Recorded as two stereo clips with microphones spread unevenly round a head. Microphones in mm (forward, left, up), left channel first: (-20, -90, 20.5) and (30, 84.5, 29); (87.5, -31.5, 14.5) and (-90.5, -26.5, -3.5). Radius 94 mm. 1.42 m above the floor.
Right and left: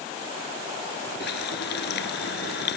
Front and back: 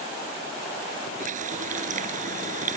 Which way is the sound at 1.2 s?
135° right.